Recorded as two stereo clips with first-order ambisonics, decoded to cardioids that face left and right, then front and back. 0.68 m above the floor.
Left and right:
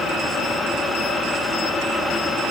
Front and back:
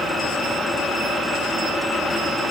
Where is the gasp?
I don't hear a gasp.